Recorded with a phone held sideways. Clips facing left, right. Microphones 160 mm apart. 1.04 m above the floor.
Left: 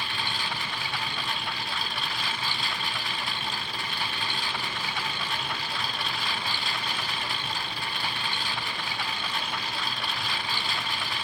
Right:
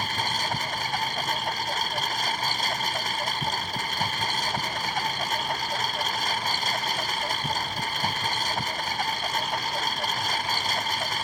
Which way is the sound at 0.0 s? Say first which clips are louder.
Right 4 dB; 45° right (ahead or behind).